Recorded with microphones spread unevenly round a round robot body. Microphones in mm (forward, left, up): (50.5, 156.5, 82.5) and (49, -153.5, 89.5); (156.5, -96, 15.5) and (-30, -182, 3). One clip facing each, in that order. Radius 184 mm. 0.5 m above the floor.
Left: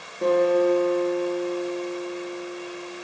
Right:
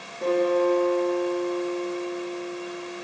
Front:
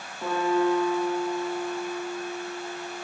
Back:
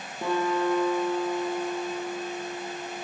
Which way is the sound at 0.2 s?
165° left.